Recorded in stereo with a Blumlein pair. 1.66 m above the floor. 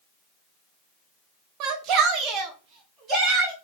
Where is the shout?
35° right, 0.9 m; by 3.5 s 25° right, 2 m.